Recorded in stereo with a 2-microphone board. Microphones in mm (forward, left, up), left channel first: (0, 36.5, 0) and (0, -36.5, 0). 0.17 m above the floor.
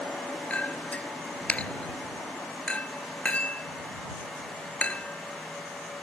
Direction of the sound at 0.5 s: 20° left (ahead or behind).